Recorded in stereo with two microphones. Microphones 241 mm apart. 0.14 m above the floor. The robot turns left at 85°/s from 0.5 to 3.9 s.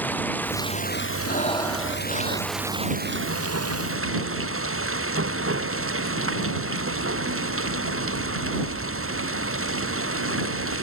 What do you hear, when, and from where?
0.0 s running water: 175° left; by 10.8 s 115° right
1.2 s breathing: 45° left; by 2.5 s 60° right